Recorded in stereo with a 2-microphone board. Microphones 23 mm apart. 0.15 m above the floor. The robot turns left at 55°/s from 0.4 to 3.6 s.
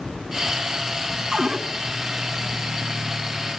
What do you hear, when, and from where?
1.3 s a cupboard door: 35° right (ahead or behind), 1.4 m; by 1.6 s 30° right (ahead or behind), 1.4 m